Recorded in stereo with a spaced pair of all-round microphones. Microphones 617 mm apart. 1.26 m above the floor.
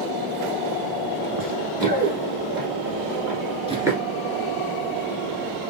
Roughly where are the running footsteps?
Right.